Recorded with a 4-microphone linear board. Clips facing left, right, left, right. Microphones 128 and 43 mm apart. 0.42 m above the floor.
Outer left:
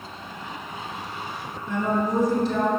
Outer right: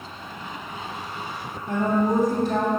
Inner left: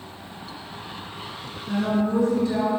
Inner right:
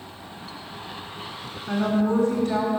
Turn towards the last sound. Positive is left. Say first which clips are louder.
# outer right 2 dB, inner right 1 dB
turn(degrees=-55)  # may be behind; listen again after turning